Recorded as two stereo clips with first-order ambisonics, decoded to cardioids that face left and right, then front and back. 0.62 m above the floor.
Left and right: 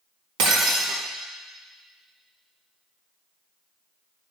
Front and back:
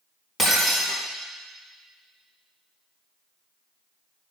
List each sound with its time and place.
0.4 s breaking glass: 75° right, 2.5 m